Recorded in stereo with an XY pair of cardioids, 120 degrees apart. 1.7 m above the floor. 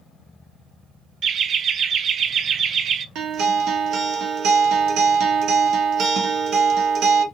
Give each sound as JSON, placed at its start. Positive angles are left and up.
{"t": 1.2, "sound": "laughter", "azimuth_deg": -50, "distance_m": 0.5}
{"t": 3.1, "sound": "a guitar", "azimuth_deg": -70, "distance_m": 1.0}